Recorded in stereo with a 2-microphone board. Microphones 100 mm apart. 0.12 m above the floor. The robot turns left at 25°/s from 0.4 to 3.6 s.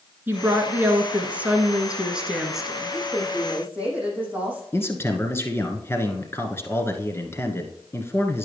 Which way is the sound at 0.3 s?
20° right (ahead or behind).